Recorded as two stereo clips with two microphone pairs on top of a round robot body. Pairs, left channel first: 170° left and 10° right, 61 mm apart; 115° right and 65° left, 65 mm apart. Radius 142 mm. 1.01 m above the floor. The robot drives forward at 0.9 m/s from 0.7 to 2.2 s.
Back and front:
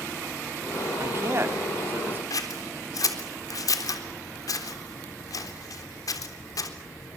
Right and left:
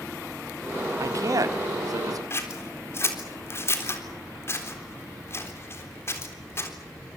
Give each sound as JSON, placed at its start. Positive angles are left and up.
{"t": 1.0, "sound": "a man speaking", "azimuth_deg": 35, "distance_m": 3.5}
{"t": 2.3, "sound": "scissors", "azimuth_deg": -170, "distance_m": 3.5}